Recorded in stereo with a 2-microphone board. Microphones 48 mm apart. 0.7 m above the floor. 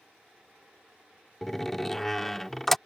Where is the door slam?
5° left (ahead or behind).